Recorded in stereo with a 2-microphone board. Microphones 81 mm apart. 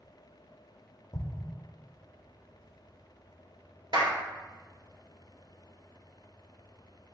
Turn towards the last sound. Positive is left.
turn(degrees=-60)  # may be behind; listen again after turning